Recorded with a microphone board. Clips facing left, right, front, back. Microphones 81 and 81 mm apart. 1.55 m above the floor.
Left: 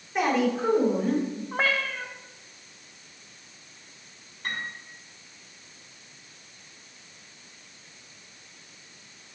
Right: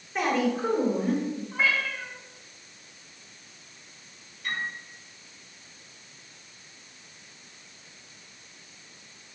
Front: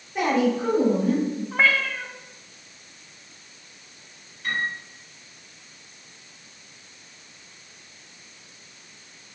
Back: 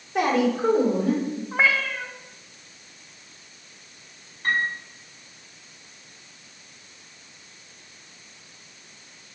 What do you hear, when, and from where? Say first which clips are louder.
0.1 s a woman speaking: left 2 dB, even; 175° left, 4 m; by 1.4 s 175° right, 5 m
1.5 s a cat meowing: left 1 dB, even; 110° left, 1.3 m
4.4 s a piano: right 1 dB, back 3 dB; 135° left, 5.5 m